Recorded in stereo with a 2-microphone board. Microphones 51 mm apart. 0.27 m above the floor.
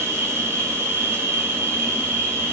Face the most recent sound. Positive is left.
turn(degrees=-50)  # may be behind; listen again after turning